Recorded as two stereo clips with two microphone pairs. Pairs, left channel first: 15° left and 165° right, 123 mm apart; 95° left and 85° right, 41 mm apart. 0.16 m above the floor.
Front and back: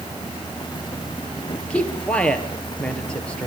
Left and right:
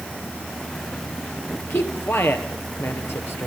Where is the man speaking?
95° left, 3 m.